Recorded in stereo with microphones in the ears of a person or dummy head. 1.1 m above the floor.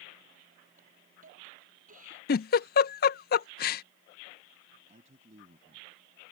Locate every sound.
0.8 s a hiss: 50° right (ahead or behind)
2.3 s a giggle: 50° left (ahead or behind)
4.9 s a man speaking: 40° right (ahead or behind)